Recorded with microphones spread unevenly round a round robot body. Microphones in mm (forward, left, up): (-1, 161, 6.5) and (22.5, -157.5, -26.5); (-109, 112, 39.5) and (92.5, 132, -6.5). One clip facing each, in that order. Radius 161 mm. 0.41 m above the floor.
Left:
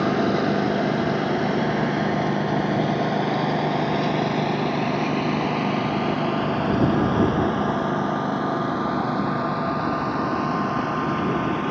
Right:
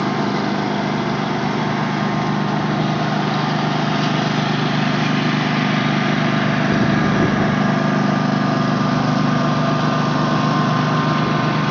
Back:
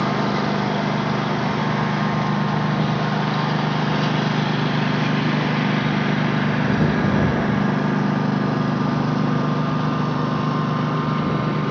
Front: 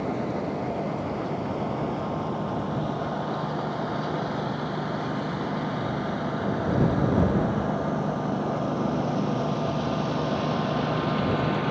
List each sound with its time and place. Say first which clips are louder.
0.0 s a lawn mower: right 1 dB, back 6 dB; 160° right; by 11.7 s 115° right